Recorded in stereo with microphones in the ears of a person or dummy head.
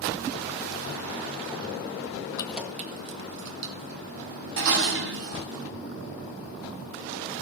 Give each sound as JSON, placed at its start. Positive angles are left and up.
{"t": 2.4, "sound": "keys jangling", "side_deg": 15, "distance_m": 0.5}
{"t": 4.6, "sound": "dishes clattering", "side_deg": -65, "distance_m": 1.2}